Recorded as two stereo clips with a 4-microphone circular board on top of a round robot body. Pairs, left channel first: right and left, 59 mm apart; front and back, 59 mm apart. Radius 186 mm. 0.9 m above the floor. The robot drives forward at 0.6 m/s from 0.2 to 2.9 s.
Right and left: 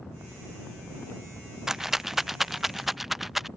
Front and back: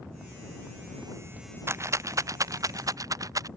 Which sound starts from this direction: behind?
A rattle, at 1.7 s.